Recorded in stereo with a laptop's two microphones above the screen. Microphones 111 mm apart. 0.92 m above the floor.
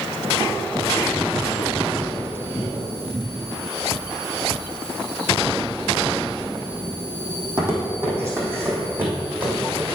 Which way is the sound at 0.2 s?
25° right (ahead or behind).